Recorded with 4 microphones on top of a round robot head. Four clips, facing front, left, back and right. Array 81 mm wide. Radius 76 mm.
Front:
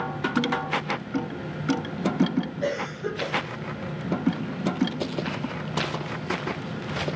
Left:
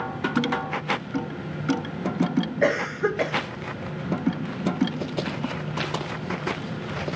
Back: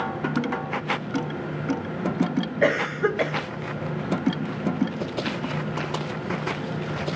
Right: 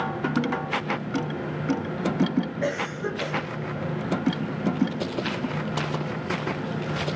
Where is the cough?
145° left, 1.5 m.